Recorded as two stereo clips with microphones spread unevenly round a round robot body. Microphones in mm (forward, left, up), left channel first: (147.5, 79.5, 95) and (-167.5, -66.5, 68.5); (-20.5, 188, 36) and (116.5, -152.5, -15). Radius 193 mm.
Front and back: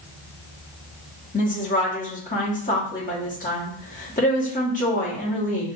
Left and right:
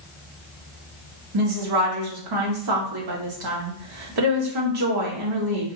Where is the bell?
I don't hear a bell.